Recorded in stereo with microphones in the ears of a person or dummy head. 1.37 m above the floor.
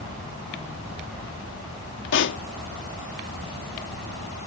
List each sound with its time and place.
2.1 s a pop: 60° left (ahead or behind)